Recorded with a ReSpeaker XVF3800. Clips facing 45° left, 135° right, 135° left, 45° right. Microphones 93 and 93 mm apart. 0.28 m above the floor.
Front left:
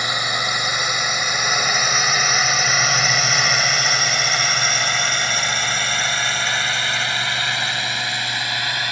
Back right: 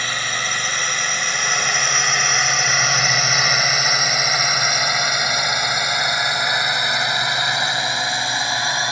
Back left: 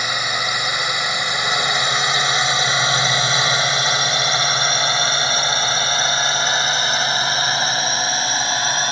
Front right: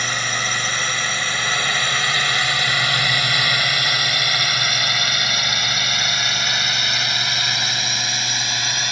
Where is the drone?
85° left; by 8.9 s 170° left.